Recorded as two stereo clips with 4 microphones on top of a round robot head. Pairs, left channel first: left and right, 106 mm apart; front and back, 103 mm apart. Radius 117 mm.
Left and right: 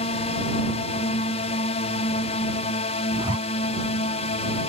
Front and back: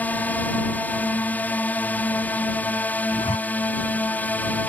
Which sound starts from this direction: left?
A drone, at 0.0 s.